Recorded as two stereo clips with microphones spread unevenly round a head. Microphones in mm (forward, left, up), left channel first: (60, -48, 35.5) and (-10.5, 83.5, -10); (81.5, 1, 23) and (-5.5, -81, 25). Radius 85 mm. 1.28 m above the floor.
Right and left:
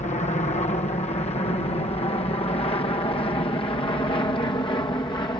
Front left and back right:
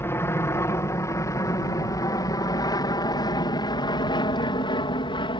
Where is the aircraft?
20° right; by 5.4 s 5° left.